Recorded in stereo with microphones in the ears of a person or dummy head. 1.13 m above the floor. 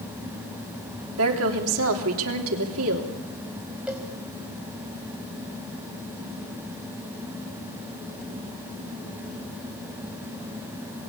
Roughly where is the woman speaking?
Right.